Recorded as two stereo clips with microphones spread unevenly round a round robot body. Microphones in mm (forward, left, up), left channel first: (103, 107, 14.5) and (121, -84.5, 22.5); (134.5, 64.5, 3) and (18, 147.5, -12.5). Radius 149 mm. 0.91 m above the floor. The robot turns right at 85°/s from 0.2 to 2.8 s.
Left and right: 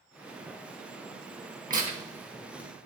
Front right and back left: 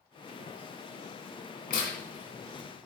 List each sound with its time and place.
1.7 s tearing paper: 45° right, 2 m; by 2.9 s 50° left, 2 m